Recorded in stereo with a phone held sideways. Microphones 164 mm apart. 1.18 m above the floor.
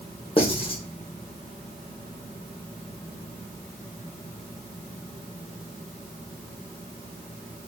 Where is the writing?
35° left (ahead or behind), 1.0 m.